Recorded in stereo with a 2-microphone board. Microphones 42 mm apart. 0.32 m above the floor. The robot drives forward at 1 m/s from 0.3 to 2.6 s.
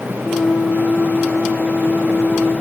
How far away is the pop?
I don't hear a pop.